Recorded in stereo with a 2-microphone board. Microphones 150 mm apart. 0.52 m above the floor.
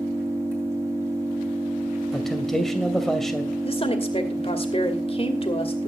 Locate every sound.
0.0 s an engine running: 20° right (ahead or behind), 6.5 m
2.1 s a man speaking: centre (ahead or behind), 2.5 m
3.6 s a woman speaking: 40° left (ahead or behind), 2.5 m